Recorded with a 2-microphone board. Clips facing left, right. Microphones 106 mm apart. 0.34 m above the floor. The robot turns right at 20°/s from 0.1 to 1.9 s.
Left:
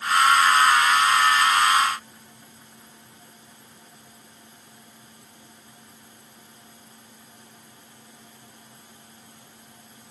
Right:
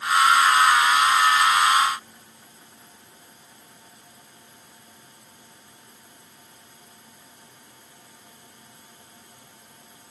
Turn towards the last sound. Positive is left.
No sound to turn to.